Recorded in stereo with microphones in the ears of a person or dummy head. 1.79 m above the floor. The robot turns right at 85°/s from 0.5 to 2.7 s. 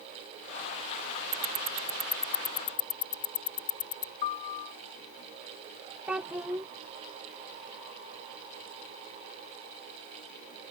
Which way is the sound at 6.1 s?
5° right (ahead or behind).